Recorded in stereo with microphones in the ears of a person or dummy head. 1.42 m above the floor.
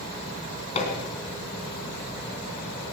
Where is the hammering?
35° left (ahead or behind), 3 m.